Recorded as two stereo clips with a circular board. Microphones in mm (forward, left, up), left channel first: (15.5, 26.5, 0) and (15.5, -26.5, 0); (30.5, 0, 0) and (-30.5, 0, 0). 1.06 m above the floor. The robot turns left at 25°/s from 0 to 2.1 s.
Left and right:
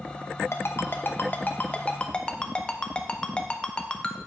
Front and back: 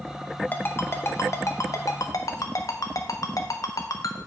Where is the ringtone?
55° left, 0.6 m; by 4.2 s 15° left, 0.6 m.